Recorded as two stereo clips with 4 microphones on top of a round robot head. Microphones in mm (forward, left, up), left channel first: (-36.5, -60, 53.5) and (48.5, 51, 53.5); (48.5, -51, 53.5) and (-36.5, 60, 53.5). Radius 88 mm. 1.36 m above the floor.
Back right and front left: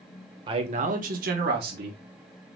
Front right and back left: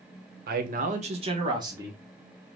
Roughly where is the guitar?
No guitar in this recording.